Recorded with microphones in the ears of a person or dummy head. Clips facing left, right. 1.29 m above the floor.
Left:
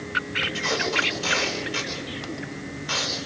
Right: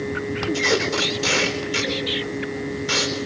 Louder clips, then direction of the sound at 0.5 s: Right 3 dB; 50° right (ahead or behind).